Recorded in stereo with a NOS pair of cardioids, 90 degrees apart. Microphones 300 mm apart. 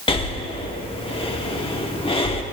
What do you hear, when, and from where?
0.1 s breathing: 20° left, 1.5 m